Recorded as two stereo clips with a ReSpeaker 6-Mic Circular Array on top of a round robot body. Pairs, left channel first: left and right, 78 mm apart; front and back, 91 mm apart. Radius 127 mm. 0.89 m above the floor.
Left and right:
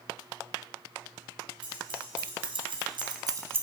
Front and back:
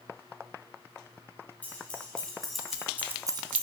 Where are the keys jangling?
75° right, 2 m; by 3.6 s 160° right, 0.7 m.